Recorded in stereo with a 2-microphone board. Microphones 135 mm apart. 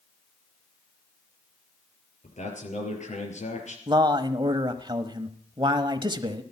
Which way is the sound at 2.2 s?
60° left (ahead or behind).